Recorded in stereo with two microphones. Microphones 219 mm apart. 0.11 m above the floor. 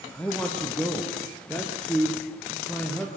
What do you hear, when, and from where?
0.1 s a man speaking: 5° left (ahead or behind), 2.5 m